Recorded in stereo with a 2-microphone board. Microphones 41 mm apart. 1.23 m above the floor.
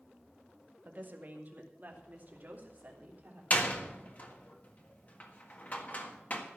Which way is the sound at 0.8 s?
45° right (ahead or behind).